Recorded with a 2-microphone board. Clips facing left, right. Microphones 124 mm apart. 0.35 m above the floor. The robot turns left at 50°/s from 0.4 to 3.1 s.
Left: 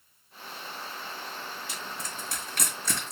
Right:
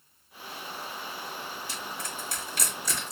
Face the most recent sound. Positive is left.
turn(degrees=75)  # may be behind; listen again after turning